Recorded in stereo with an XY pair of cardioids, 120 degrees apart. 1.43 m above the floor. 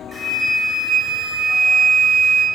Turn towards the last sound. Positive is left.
turn(degrees=15)